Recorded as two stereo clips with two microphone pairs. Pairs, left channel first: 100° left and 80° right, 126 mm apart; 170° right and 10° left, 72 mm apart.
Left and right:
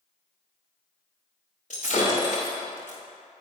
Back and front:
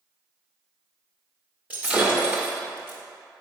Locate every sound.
1.7 s breaking glass: 80° left, 2.5 m